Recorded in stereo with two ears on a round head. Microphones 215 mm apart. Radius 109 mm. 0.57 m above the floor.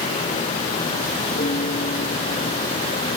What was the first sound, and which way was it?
A piano, 30° left (ahead or behind).